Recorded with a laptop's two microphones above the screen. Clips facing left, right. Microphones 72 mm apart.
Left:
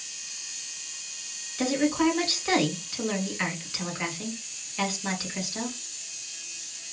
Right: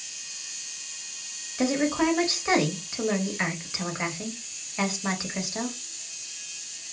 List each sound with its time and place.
1.6 s a woman speaking: 25° right (ahead or behind), 1.2 m